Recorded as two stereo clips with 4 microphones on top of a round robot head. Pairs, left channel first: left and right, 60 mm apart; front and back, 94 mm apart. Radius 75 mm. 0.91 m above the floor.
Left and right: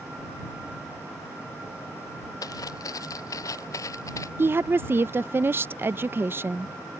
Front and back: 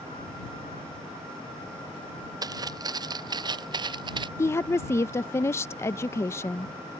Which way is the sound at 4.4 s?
55° right.